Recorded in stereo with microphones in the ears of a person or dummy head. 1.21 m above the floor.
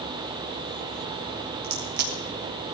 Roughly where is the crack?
Right.